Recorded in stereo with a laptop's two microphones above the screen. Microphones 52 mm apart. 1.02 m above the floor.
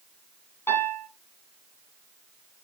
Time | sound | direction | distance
0.7 | a piano | 50° left (ahead or behind) | 1.4 m